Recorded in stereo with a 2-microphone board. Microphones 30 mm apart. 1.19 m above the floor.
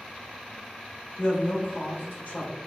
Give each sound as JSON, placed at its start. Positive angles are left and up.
{"t": 1.2, "sound": "a man speaking", "side_deg": 90, "distance_m": 1.4}